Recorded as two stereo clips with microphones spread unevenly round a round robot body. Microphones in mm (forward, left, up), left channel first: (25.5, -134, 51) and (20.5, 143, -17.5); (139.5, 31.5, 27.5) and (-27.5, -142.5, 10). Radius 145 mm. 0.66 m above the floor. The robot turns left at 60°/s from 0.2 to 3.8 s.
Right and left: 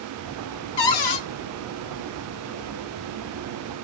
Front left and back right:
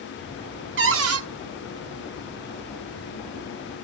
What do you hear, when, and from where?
0.8 s a cupboard door: 90° right, 0.8 m; by 1.2 s 120° right, 0.8 m